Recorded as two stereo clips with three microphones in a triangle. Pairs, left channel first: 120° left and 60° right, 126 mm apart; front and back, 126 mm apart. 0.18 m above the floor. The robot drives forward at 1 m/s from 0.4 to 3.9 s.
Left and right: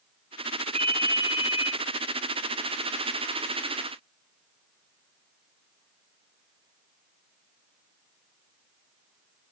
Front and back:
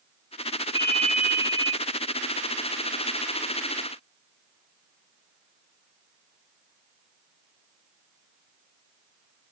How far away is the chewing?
I don't hear chewing.